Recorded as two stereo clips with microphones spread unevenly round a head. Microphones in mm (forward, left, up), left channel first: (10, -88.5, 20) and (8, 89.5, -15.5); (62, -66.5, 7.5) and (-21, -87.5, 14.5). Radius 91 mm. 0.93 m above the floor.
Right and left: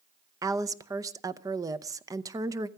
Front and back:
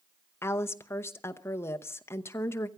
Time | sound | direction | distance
0.4 | a woman speaking | 50° left | 0.7 m